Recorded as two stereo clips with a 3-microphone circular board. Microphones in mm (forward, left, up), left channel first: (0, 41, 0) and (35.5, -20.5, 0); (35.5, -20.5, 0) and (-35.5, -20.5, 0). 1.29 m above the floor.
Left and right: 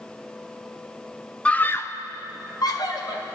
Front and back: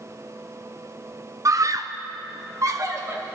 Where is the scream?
175° right, 0.6 m; by 3.2 s 135° left, 1.6 m.